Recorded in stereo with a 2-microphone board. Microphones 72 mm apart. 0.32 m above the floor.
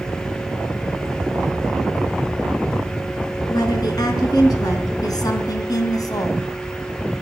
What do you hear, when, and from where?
3.5 s a woman speaking: 70° left (ahead or behind), 4 m; by 6.5 s 60° left (ahead or behind), 1.8 m